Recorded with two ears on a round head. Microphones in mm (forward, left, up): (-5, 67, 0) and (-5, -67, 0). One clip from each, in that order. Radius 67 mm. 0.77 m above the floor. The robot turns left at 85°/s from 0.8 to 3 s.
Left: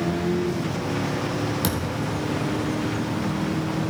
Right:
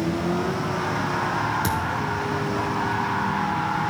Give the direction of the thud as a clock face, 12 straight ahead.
11 o'clock.